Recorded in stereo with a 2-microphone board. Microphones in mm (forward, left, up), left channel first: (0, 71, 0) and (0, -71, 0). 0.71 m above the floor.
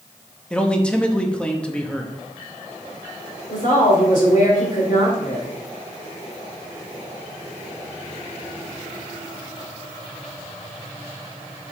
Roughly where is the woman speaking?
Left.